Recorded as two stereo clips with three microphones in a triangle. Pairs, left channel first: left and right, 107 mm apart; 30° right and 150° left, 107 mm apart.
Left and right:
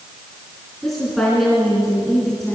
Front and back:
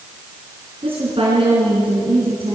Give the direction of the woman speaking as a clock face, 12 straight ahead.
6 o'clock.